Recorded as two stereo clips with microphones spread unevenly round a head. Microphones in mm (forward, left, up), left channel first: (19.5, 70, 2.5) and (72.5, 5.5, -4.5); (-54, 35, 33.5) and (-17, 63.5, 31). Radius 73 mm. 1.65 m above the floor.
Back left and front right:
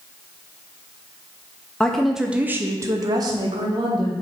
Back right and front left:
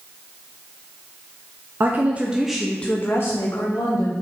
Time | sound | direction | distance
1.8 | a woman speaking | 65° left | 0.6 m